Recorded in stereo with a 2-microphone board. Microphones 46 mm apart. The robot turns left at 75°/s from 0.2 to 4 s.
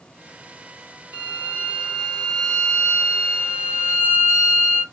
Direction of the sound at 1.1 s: 100° right.